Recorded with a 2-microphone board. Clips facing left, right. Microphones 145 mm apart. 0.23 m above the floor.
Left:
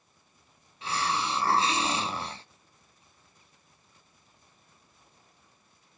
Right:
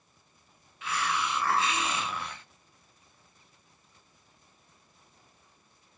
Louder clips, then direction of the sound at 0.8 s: Left 1 dB; 30° left (ahead or behind).